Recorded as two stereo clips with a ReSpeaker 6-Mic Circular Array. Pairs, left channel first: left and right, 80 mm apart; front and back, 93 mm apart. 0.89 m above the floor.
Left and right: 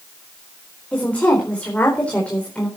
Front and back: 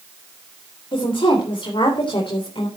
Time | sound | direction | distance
0.9 | a woman speaking | 15° left | 4 m